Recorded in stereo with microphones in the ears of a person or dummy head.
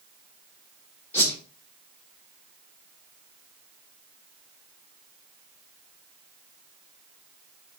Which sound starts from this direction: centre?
A whoosh, at 1.1 s.